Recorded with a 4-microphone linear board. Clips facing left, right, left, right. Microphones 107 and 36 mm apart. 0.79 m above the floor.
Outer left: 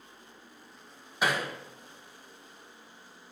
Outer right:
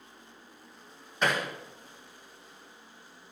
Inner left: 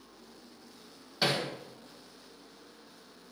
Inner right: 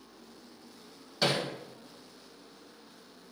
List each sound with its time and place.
1.2 s hammering: 10° left (ahead or behind), 1.7 m